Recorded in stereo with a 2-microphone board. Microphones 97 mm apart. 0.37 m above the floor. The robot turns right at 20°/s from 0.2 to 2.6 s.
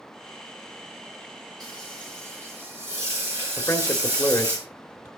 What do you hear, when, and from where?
1.6 s frying: 45° right (ahead or behind), 8.5 m; by 4.6 s 25° right (ahead or behind), 8.5 m
3.6 s a man speaking: 25° left (ahead or behind), 1.4 m